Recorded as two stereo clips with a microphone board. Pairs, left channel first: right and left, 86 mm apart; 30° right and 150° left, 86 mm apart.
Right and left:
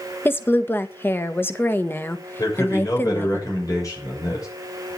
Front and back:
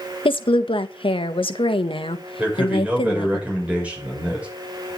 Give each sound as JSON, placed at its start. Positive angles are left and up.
{"t": 0.2, "sound": "a woman speaking", "azimuth_deg": -25, "distance_m": 1.5}
{"t": 2.4, "sound": "a man speaking", "azimuth_deg": -135, "distance_m": 6.5}